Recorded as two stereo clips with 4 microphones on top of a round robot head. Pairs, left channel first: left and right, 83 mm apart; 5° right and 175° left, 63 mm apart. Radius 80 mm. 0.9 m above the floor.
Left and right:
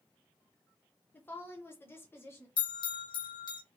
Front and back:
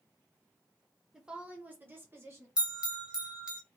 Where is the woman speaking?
110° left, 0.8 m; by 2.5 s 145° left, 1.1 m.